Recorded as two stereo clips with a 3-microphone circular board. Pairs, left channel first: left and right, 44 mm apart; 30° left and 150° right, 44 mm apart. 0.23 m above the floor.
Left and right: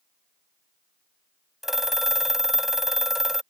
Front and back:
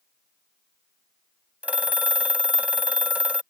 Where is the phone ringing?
165° right.